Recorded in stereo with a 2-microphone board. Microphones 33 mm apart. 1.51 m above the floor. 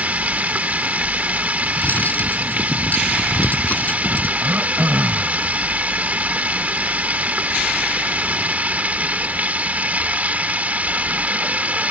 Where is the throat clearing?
80° right.